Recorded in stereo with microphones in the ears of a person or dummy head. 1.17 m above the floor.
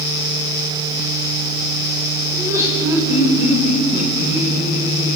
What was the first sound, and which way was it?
Laughter, 25° right (ahead or behind).